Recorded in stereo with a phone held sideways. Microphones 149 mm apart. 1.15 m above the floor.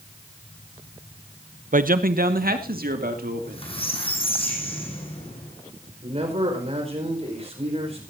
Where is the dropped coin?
No dropped coin in this recording.